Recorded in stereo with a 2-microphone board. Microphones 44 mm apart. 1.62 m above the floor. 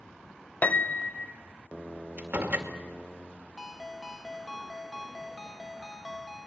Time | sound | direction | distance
0.6 | a piano | 40° left (ahead or behind) | 0.8 m
2.2 | a door slam | 40° right (ahead or behind) | 2.5 m
3.6 | a ringtone | 10° left (ahead or behind) | 1.0 m